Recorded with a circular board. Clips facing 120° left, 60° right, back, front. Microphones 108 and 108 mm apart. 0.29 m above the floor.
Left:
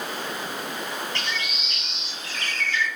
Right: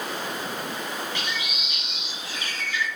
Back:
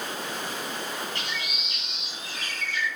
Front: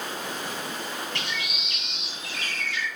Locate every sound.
1.1 s a bird: 20° left, 5.5 m